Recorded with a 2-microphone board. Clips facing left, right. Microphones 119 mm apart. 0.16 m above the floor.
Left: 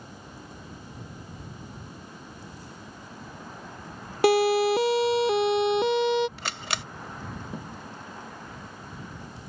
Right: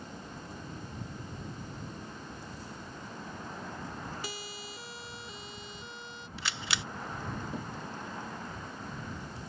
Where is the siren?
70° left (ahead or behind); by 6.3 s 75° left (ahead or behind).